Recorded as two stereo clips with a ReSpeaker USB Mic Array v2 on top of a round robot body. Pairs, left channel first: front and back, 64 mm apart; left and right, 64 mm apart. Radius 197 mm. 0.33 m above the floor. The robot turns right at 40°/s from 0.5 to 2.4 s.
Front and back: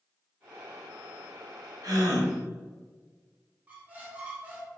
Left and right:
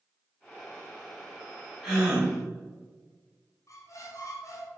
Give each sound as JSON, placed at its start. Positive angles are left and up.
{"t": 1.8, "sound": "a gasp", "azimuth_deg": -170, "distance_m": 2.0}
{"t": 3.7, "sound": "a squeak", "azimuth_deg": 115, "distance_m": 1.1}